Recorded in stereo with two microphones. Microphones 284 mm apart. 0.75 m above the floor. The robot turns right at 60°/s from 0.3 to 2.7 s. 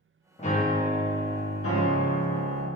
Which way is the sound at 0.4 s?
30° left.